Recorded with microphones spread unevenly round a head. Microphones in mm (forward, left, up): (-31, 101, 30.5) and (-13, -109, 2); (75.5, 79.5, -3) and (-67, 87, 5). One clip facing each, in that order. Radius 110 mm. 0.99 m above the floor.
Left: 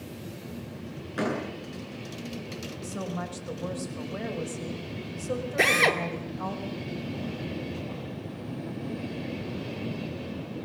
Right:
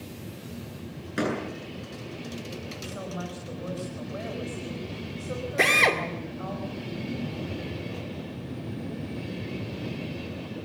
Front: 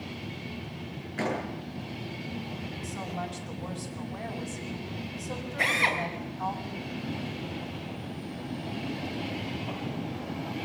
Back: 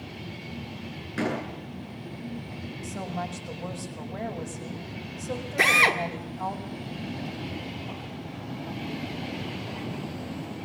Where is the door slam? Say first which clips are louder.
Right 1 dB, back 2 dB; 140° right, 9 m.